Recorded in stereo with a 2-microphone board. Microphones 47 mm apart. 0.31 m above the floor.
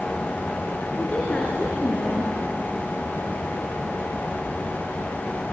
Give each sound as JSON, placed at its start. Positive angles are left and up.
{"t": 1.0, "sound": "a woman speaking", "side_deg": 35, "distance_m": 4.0}